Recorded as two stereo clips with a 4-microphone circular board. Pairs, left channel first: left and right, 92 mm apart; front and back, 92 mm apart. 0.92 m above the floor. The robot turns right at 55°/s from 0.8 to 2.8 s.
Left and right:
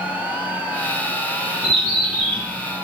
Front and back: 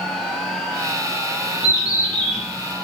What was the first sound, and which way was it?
A bird, 50° left.